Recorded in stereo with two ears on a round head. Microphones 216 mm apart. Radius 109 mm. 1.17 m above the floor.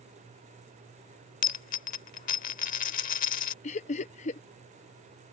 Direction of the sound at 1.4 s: 35° left (ahead or behind).